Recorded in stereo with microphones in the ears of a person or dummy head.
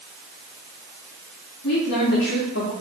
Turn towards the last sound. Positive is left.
turn(degrees=65)  # may be behind; listen again after turning